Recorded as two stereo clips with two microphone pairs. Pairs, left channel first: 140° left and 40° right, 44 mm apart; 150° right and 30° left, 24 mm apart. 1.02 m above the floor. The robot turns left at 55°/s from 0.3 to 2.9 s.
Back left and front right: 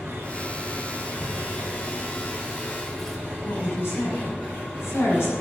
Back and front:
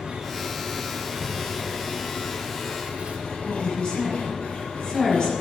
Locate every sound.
0.0 s an engine running: 15° right, 7.5 m; by 5.4 s 160° right, 7.5 m
1.2 s tearing paper: 155° left, 3.5 m; by 3.2 s 60° left, 3.5 m
3.5 s a woman speaking: 160° left, 6.5 m